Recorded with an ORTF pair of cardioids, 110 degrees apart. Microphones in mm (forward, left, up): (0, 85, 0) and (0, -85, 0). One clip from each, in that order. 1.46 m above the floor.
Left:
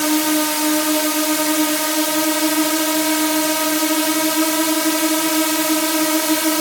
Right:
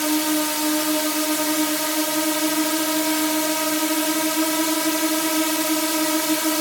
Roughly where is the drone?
Ahead left.